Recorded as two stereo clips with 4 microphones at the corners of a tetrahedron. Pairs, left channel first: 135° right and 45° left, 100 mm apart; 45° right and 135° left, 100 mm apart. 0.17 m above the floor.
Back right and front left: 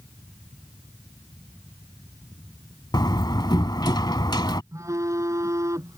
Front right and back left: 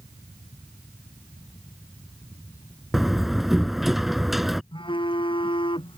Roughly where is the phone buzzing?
Ahead.